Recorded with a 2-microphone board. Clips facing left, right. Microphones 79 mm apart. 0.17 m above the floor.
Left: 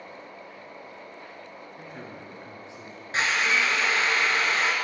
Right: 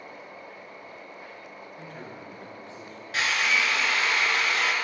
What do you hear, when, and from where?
1.8 s a man speaking: 20° left (ahead or behind), 1.9 m
3.1 s a drill: 35° left (ahead or behind), 1.0 m